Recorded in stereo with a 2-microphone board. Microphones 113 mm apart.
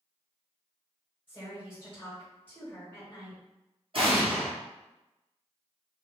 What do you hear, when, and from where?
1.3 s a woman speaking: 20° left (ahead or behind), 1.3 m
3.9 s an explosion: 55° right (ahead or behind), 0.9 m